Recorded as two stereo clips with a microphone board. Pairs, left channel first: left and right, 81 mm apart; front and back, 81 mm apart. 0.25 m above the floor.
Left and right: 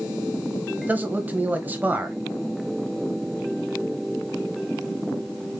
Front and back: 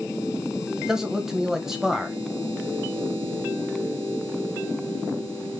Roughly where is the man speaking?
Right.